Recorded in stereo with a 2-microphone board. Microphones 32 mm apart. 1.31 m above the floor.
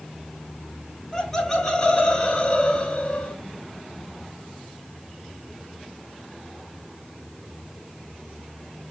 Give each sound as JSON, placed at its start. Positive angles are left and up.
{"t": 1.1, "sound": "laughter", "side_deg": 15, "distance_m": 5.5}